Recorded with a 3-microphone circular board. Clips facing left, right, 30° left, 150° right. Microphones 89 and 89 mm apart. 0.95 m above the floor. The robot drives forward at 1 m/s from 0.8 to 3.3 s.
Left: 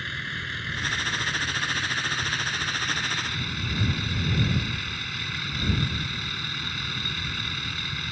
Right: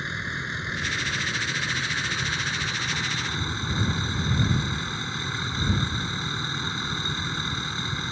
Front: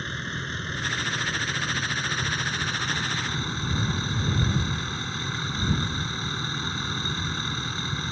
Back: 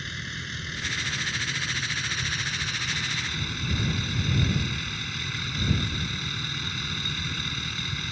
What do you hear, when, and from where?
0.0 s a vehicle: 20° right; by 8.1 s 25° right